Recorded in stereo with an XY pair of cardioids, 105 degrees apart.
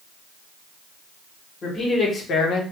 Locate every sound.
1.6 s a man speaking: 45° left, 1.5 m; by 2.6 s 75° left, 0.8 m